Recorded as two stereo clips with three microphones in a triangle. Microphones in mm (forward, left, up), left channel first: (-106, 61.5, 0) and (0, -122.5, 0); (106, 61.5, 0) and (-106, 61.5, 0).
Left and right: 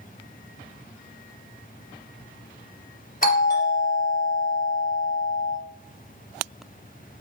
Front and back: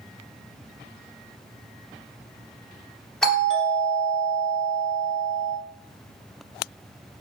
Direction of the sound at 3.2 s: 85° left.